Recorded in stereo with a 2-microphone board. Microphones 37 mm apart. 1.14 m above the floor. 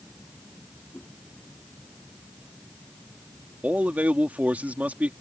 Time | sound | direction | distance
0.9 | a whoosh | 50° left (ahead or behind) | ?
3.6 | a man speaking | 45° right (ahead or behind) | ?